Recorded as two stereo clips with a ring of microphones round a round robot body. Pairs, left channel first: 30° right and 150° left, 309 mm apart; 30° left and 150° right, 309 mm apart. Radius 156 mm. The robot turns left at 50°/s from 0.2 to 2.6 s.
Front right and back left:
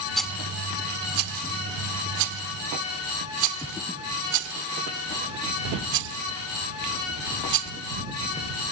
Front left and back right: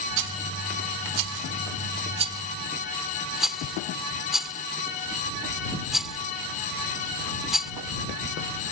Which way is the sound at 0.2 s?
120° right.